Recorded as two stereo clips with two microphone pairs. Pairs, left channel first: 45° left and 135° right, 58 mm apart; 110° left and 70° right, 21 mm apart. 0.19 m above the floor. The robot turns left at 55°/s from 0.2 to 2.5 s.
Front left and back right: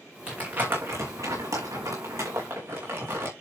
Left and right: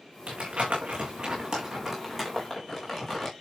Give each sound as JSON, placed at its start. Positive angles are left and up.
{"t": 0.3, "sound": "crumpling", "azimuth_deg": -60, "distance_m": 4.0}